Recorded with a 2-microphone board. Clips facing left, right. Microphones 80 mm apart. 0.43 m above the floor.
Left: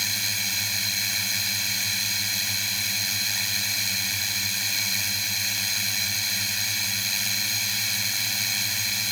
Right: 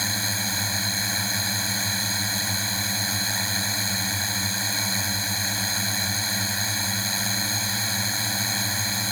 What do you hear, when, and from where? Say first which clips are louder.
0.0 s a drone: right 4 dB; 30° right (ahead or behind)